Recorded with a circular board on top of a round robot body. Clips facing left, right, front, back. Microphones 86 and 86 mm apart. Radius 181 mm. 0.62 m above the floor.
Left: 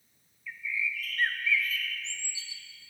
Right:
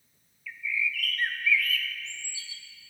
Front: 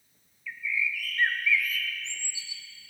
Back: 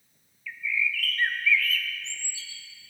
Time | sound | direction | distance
0.5 | a bird | 60° left | 1.1 m